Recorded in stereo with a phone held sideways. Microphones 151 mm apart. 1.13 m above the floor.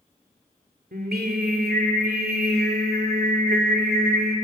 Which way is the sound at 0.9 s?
85° right.